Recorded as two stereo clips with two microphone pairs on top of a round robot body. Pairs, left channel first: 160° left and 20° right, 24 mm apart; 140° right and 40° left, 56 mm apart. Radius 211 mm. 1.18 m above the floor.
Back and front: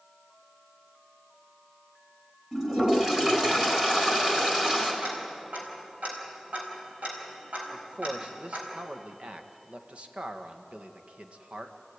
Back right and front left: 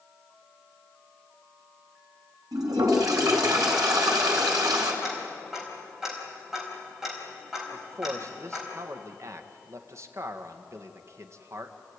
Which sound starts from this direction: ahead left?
A toilet flushing, at 2.5 s.